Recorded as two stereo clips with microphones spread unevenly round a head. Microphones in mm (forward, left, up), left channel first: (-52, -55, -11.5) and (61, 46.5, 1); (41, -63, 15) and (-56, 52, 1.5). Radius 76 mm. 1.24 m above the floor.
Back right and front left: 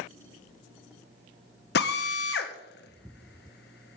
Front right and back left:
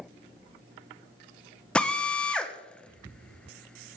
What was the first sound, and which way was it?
A drill, 135° right.